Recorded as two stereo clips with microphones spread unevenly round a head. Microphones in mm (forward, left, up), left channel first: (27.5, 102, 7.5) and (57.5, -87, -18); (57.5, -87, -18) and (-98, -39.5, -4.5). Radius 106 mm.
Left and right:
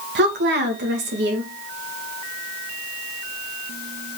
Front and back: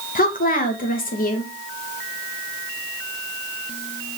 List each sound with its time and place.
0.1 s a woman speaking: 50° right, 2.5 m